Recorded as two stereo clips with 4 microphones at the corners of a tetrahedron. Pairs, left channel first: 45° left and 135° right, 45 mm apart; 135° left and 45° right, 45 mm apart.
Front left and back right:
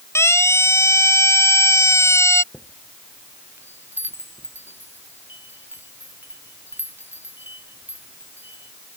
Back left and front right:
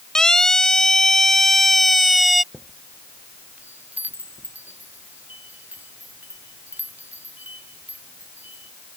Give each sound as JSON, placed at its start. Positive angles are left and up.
{"t": 0.1, "sound": "a siren", "azimuth_deg": 60}
{"t": 2.5, "sound": "a chime", "azimuth_deg": -95}